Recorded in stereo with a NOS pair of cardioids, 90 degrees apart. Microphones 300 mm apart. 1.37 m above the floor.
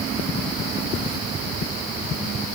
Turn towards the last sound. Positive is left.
No sound to turn to.